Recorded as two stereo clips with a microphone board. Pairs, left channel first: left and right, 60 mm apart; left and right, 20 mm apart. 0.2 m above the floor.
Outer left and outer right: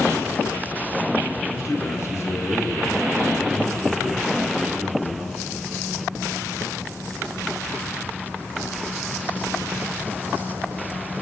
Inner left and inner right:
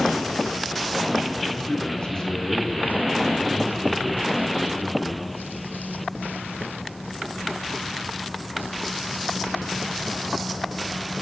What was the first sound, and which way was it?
A man speaking, 65° left (ahead or behind).